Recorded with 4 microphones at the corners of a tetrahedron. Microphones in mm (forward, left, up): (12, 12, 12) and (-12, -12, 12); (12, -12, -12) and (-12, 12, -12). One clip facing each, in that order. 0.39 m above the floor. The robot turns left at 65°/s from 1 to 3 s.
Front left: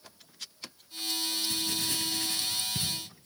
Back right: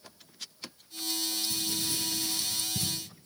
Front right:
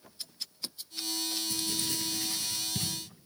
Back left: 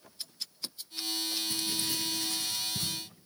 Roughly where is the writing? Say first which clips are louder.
Front left 1 dB, back left 1 dB; left.